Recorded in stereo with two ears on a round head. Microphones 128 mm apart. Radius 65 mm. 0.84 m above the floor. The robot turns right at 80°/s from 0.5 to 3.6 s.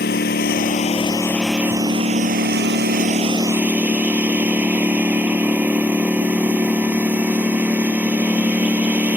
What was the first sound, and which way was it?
A lawn mower, 100° left.